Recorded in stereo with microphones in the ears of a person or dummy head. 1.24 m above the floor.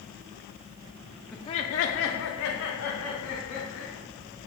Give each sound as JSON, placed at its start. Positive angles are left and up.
{"t": 1.3, "sound": "laughter", "side_deg": 0, "distance_m": 0.5}